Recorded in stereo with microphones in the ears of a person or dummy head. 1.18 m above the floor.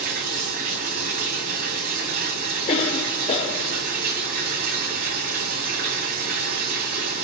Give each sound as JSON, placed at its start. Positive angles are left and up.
{"t": 0.0, "sound": "running water", "side_deg": -40, "distance_m": 2.0}
{"t": 2.7, "sound": "a cough", "side_deg": 30, "distance_m": 1.2}